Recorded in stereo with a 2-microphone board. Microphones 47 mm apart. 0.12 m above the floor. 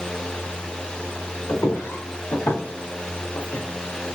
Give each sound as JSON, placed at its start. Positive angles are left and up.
{"t": 1.5, "sound": "footsteps", "side_deg": 70, "distance_m": 1.8}